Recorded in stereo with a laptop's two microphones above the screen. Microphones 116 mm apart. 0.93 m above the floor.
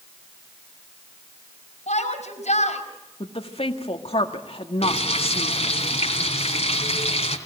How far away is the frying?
About 2.5 m.